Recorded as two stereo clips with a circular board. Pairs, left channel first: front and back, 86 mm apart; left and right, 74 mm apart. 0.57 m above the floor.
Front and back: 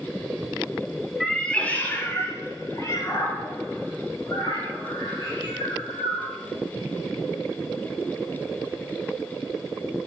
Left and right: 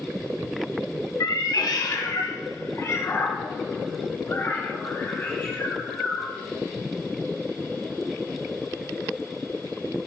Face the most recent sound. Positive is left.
turn(degrees=25)